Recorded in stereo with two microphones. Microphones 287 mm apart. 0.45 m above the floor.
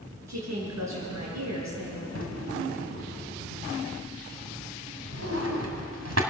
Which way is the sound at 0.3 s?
70° right (ahead or behind).